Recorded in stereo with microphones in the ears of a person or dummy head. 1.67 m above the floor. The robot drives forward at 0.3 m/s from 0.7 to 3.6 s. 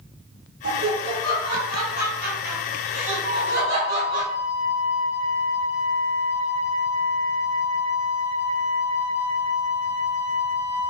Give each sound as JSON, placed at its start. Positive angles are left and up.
{"t": 0.6, "sound": "laughter", "side_deg": -65, "distance_m": 1.4}
{"t": 3.2, "sound": "a flute", "side_deg": -45, "distance_m": 1.8}